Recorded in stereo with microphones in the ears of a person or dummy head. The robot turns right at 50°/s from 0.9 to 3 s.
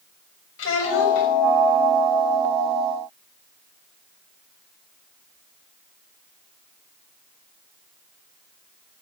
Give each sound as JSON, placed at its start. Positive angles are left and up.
{"t": 0.6, "sound": "a child speaking", "side_deg": 90, "distance_m": 5.5}